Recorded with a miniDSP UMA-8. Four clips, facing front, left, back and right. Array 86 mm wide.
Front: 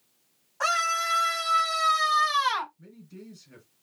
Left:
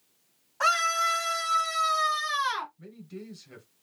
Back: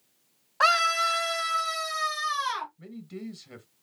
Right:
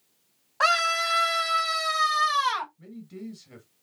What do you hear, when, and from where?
0.6 s a scream: 140° right, 1.9 m; by 2.7 s 50° right, 2.5 m
2.8 s a man speaking: 175° right, 1.8 m